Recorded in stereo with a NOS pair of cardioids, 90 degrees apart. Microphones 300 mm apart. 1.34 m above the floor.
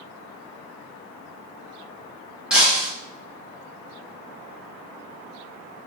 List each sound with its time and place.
2.5 s breaking glass: 5° right, 1.6 m